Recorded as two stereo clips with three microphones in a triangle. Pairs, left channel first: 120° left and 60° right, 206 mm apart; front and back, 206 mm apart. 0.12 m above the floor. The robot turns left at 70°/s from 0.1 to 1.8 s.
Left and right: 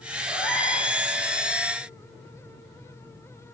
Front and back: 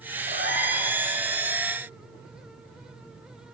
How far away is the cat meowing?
About 2.5 m.